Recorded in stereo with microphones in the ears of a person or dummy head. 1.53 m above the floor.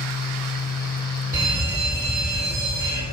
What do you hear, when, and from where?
0.0 s a fan: 45° left (ahead or behind), 0.7 m
1.3 s a fire alarm: 10° right (ahead or behind), 8.5 m